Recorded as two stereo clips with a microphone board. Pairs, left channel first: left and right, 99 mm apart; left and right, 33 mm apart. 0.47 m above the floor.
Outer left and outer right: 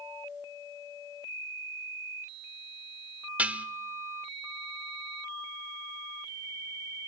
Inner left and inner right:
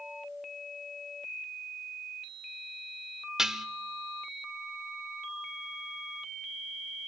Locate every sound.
3.4 s dishes clattering: 15° right (ahead or behind), 0.8 m